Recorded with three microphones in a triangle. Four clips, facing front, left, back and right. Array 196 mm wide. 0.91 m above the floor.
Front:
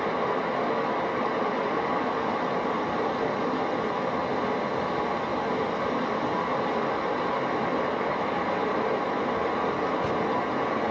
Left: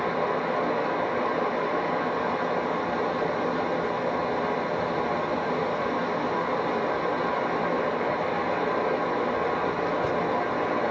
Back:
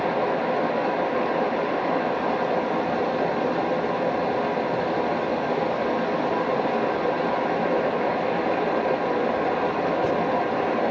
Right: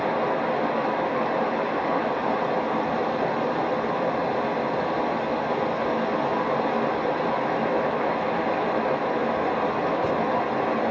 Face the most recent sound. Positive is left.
turn(degrees=-150)